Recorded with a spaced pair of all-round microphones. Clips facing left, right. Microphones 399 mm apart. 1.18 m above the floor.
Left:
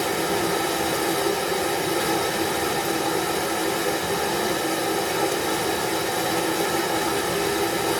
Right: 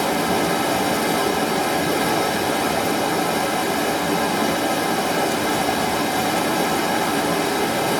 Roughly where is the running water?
Right.